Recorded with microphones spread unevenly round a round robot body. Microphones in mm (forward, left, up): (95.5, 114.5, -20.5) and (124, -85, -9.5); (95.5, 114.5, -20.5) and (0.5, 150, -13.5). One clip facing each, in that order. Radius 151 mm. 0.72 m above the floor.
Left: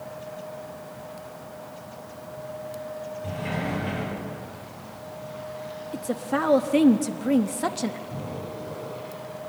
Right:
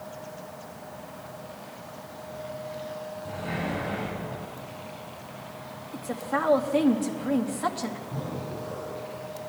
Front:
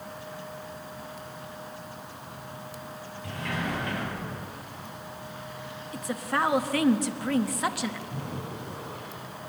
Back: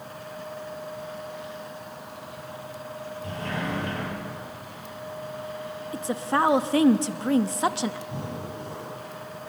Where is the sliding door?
105° left, 6 m.